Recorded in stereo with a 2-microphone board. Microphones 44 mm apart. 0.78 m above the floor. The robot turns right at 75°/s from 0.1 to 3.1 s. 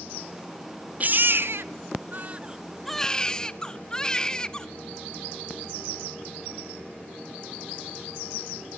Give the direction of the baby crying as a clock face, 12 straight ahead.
5 o'clock.